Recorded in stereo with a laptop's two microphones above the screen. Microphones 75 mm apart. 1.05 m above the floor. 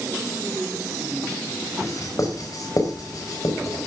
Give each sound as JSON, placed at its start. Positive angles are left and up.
{"t": 1.8, "sound": "writing", "side_deg": 50, "distance_m": 4.0}